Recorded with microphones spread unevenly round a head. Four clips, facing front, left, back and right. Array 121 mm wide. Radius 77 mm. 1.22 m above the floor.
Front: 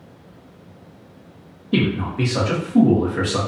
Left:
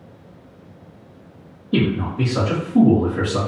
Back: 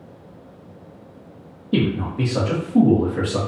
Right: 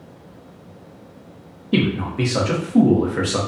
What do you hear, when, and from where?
1.7 s a man speaking: 145° right, 0.7 m